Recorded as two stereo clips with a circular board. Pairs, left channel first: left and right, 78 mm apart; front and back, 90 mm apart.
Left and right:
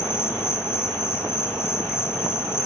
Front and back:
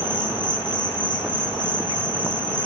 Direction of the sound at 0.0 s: 35° left.